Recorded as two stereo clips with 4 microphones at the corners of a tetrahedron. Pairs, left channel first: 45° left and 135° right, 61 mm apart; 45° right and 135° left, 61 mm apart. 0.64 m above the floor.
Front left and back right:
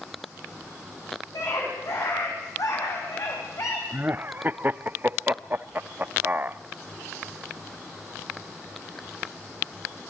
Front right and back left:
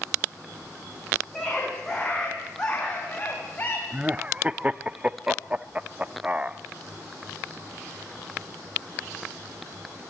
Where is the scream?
40° left, 6 m; by 3.8 s 15° left, 4 m.